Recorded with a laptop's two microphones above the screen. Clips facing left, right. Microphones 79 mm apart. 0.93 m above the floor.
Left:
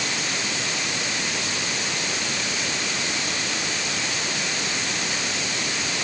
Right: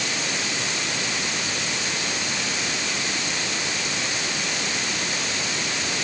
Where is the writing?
No writing in this recording.